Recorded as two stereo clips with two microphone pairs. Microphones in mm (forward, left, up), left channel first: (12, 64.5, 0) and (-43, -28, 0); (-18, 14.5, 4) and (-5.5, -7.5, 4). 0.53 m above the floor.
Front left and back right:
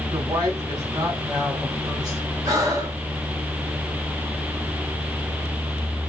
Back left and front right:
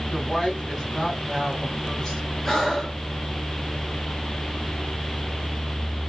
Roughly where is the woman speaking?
Behind.